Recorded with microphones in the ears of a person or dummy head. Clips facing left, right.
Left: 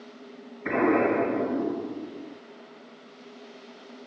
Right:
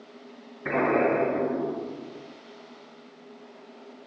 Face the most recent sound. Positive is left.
turn(degrees=-15)  # may be behind; listen again after turning